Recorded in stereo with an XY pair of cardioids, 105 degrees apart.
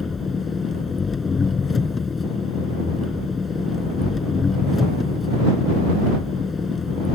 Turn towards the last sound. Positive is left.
turn(degrees=35)